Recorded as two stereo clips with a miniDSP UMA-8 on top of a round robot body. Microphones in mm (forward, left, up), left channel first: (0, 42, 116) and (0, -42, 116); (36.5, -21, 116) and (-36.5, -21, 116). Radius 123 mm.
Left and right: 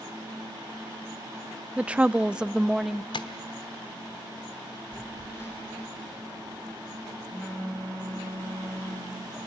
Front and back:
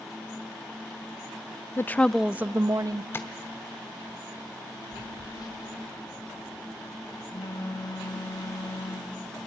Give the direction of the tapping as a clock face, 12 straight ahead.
10 o'clock.